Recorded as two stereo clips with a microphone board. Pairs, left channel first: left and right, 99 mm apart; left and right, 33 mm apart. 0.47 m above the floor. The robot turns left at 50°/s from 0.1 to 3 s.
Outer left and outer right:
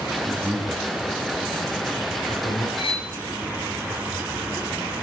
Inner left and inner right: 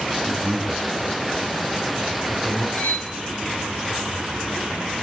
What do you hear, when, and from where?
0.2 s a man speaking: 40° right (ahead or behind), 4 m; by 2.7 s 75° left (ahead or behind), 4 m
2.8 s cutlery clinking: 65° left (ahead or behind), 1.8 m; by 3.1 s 75° left (ahead or behind), 1.8 m